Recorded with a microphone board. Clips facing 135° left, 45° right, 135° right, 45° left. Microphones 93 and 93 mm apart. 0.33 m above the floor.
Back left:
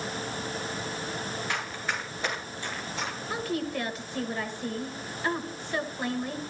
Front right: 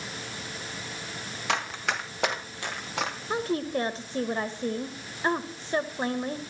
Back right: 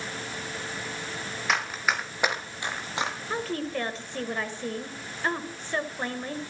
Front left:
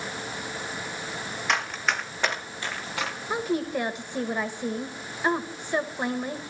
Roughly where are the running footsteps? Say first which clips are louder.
Front right 7 dB, even; ahead right.